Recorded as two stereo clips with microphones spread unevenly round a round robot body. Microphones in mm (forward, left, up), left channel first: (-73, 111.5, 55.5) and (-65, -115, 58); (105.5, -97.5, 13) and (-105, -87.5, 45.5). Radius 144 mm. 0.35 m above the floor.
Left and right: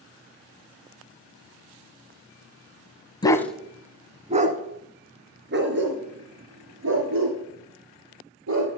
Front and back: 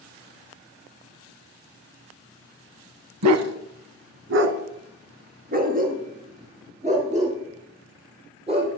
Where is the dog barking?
165° left, 0.9 m; by 8.7 s 120° right, 4.5 m.